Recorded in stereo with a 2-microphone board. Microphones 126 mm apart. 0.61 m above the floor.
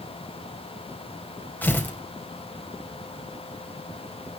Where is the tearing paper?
15° left (ahead or behind), 4 m.